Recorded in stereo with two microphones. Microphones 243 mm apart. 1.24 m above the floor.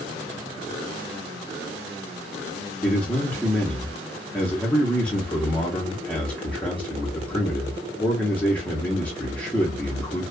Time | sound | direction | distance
2.8 | a man speaking | 5° left (ahead or behind) | 0.8 m